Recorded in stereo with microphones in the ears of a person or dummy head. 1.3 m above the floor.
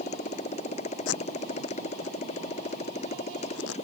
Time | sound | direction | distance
0.0 | a motorcycle | 40° left (ahead or behind) | ?
1.1 | tape being pulled | 80° left | ?